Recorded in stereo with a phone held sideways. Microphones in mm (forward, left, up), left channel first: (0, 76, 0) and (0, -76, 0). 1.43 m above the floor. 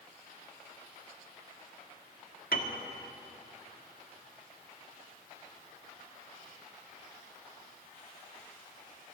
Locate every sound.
2.5 s a piano: 75° left (ahead or behind), 2.0 m